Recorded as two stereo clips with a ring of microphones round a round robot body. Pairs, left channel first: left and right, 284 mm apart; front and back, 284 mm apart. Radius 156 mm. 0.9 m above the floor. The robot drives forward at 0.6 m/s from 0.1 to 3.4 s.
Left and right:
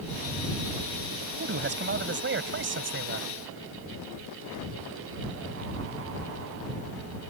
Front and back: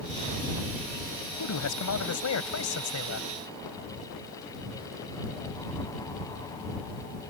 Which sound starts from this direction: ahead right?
A man speaking, at 1.4 s.